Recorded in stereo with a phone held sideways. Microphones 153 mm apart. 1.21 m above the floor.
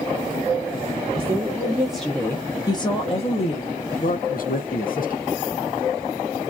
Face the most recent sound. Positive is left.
turn(degrees=70)  # may be behind; listen again after turning